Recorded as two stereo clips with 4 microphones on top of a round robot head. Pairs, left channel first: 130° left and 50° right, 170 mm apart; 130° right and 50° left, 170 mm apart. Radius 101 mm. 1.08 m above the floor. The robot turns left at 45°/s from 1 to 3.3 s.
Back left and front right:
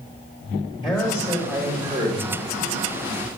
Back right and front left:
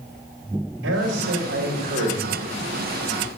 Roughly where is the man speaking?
Ahead left.